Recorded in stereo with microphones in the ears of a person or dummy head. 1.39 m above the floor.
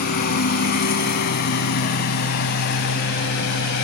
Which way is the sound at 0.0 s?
55° left (ahead or behind).